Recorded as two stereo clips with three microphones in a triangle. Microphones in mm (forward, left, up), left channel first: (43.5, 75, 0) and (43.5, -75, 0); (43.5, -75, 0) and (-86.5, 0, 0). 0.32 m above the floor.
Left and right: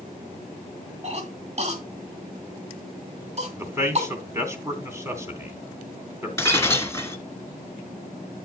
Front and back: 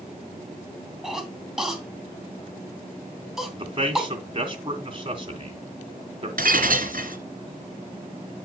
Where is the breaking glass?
160° left, 1.5 m.